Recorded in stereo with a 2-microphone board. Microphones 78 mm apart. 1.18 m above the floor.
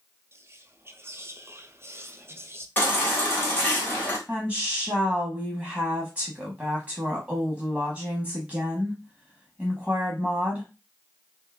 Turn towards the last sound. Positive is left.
turn(degrees=-10)  # may be behind; listen again after turning